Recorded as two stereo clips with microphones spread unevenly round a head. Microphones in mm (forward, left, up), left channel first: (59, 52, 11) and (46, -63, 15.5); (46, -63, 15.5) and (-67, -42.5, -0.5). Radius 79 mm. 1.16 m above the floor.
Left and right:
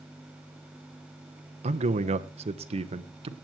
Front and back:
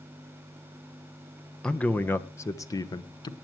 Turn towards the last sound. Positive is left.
turn(degrees=-60)